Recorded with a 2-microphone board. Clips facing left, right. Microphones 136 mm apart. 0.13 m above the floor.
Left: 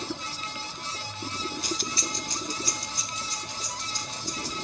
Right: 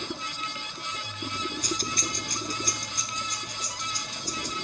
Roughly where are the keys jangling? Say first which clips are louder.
Right 1 dB; right.